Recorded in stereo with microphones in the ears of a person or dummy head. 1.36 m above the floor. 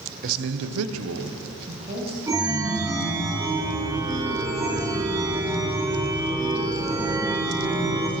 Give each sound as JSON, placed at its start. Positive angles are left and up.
{"t": 0.2, "sound": "a man speaking", "side_deg": -45, "distance_m": 0.7}
{"t": 2.3, "sound": "a chime", "side_deg": -15, "distance_m": 1.1}